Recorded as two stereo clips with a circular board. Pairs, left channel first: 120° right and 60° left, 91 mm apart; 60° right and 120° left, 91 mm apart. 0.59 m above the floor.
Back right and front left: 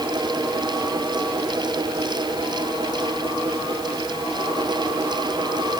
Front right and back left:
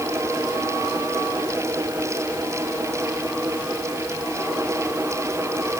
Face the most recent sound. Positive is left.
No sound to turn to.